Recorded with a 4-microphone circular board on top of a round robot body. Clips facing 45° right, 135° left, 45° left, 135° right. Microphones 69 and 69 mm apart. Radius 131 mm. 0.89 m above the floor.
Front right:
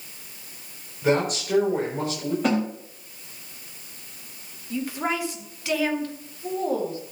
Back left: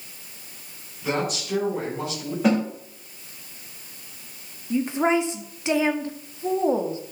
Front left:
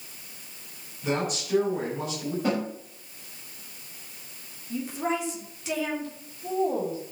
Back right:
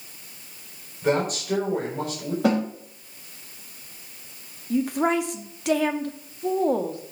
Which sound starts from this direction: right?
A woman speaking, at 1.0 s.